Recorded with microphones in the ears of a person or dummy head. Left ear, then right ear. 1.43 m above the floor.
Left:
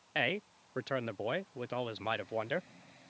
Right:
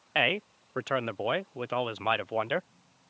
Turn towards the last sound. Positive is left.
turn(degrees=-35)  # may be behind; listen again after turning